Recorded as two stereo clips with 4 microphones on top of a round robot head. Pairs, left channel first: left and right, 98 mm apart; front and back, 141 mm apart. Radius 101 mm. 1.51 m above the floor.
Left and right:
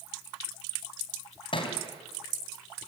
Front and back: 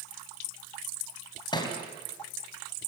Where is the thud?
60° left, 3 m.